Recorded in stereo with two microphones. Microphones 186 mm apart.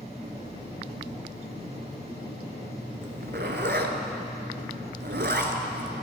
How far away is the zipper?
About 0.9 m.